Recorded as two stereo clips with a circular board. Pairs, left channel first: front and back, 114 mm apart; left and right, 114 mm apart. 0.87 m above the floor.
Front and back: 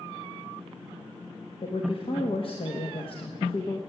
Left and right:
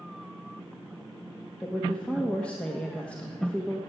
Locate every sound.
1.6 s a woman speaking: 15° left, 1.2 m